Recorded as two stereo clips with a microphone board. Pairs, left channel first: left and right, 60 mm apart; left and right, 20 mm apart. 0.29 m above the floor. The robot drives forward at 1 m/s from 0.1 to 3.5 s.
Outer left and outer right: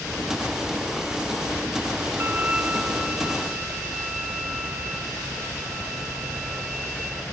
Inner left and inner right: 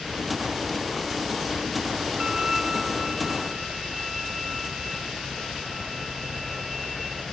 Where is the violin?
30° right (ahead or behind), 0.5 m; by 7.2 s 10° right (ahead or behind), 1.8 m.